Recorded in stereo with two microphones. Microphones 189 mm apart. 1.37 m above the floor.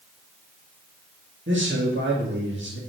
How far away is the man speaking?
About 2.0 m.